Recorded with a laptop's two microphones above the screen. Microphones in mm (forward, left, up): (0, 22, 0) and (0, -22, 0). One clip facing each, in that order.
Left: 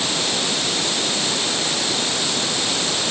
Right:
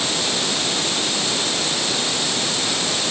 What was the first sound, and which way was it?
Only background noise.